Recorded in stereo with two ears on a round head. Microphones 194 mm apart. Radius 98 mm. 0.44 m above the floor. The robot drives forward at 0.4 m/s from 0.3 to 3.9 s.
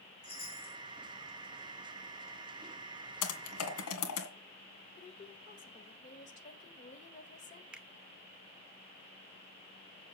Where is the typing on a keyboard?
80° left, 2 m.